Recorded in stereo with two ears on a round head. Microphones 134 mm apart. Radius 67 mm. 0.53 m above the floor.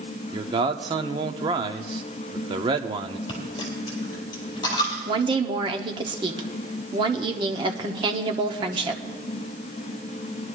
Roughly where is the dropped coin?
Left.